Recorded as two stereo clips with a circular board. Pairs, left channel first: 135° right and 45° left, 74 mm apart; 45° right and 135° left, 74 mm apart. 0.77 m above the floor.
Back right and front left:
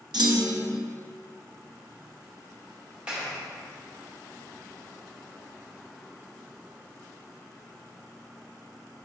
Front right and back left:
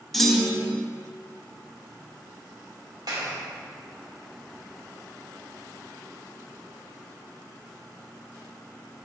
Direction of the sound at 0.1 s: 40° left.